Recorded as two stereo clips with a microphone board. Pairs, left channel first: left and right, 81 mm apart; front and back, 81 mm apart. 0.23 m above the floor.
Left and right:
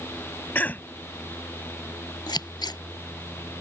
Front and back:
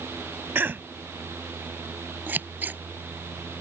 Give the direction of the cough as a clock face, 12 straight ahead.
7 o'clock.